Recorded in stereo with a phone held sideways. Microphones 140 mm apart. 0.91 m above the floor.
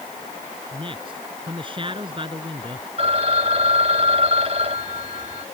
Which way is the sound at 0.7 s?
35° right (ahead or behind).